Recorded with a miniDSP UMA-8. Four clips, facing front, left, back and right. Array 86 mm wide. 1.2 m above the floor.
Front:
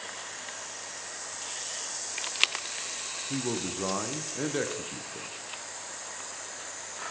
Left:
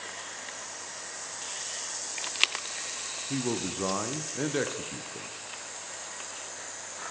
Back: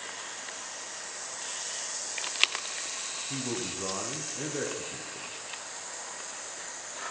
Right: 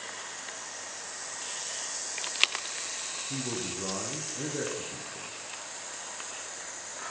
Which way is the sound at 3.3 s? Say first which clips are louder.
Left 5 dB, front 3 dB; 60° left.